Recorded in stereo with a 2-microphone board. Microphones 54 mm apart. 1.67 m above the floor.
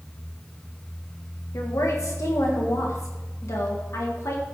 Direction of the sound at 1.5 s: 70° left (ahead or behind).